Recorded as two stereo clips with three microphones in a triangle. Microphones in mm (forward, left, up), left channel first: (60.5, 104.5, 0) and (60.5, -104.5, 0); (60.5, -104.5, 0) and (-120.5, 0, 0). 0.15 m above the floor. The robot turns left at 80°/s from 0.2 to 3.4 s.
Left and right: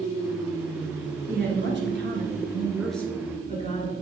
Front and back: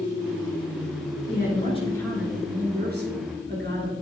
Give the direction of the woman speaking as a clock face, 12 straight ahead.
2 o'clock.